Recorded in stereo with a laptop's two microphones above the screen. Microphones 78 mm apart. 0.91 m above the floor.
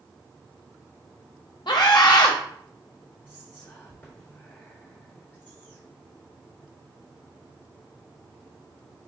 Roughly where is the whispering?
Left.